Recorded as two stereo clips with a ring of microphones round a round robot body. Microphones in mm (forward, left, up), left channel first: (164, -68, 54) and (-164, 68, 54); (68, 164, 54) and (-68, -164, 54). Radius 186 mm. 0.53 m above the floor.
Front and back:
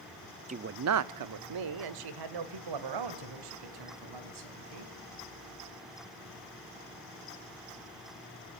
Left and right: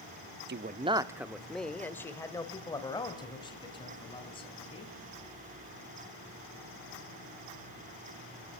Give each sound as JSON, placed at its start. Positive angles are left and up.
{"t": 0.5, "sound": "a man speaking", "azimuth_deg": -145, "distance_m": 0.7}